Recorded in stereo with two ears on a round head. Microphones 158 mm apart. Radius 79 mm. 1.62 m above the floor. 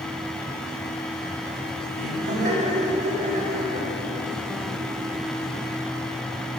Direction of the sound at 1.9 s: 50° right (ahead or behind).